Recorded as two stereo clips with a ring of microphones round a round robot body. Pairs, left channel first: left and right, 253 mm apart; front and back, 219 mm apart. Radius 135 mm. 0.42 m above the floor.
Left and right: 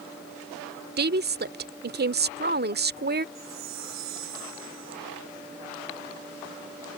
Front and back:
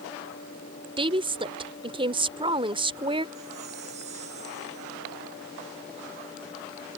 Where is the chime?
115° right.